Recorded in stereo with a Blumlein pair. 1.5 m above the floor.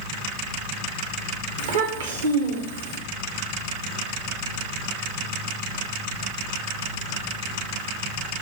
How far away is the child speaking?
About 1.0 m.